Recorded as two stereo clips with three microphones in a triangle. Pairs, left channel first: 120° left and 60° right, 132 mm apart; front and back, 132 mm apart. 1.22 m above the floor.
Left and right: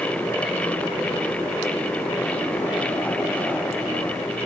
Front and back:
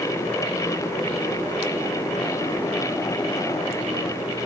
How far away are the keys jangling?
No keys jangling in this recording.